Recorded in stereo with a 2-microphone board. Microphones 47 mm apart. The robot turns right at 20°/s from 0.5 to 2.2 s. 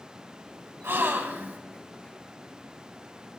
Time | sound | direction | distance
0.8 | a gasp | 55° right (ahead or behind) | 1.6 m